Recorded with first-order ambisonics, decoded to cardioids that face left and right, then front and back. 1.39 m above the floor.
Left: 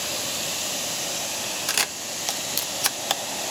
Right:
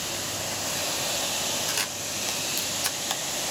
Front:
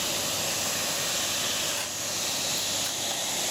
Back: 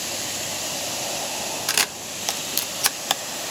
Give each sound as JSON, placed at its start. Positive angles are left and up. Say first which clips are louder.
{"t": 1.7, "sound": "a camera shutter", "louder": "left 3 dB, back 7 dB", "azimuth_deg": 155, "distance_m": 0.9}